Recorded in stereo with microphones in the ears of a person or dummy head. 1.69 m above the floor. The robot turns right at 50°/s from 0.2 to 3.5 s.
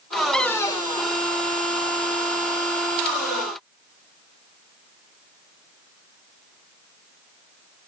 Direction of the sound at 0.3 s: 5° left (ahead or behind).